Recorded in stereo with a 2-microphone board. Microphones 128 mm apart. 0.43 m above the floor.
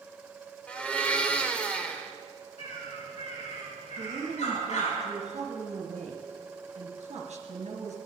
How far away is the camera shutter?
No camera shutter in this recording.